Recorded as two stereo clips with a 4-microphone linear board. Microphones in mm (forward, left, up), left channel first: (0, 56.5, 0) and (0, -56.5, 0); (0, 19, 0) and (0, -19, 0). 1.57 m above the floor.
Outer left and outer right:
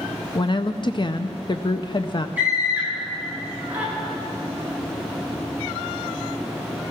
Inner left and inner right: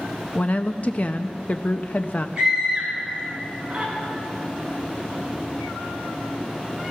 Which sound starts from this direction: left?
A woman speaking, at 0.3 s.